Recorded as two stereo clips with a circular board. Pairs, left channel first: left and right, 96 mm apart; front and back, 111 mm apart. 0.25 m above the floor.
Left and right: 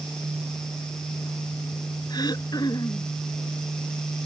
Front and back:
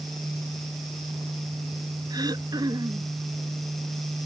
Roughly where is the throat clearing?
Behind left.